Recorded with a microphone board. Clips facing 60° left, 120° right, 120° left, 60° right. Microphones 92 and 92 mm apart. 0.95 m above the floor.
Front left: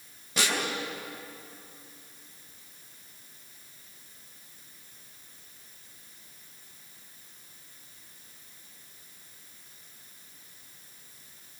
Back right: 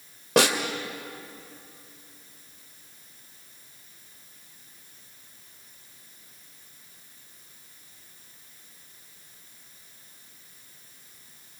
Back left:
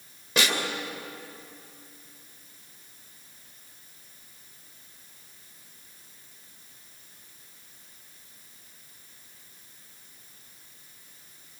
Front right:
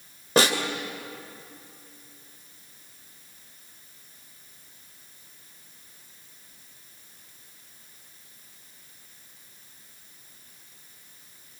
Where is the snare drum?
110° right, 2.5 m.